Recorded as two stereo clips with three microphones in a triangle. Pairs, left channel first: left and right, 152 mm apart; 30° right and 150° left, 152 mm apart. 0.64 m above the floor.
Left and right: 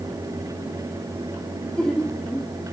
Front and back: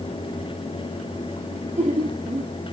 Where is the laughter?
175° left, 1.1 m.